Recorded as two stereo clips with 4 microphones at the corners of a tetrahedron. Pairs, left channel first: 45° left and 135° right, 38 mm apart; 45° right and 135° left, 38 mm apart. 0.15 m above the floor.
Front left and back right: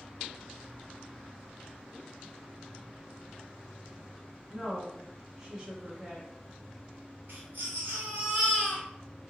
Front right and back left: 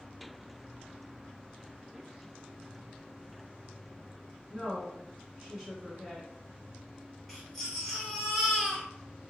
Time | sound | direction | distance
4.5 | a woman speaking | 175° left | 1.0 m
7.3 | a baby crying | 135° right | 1.4 m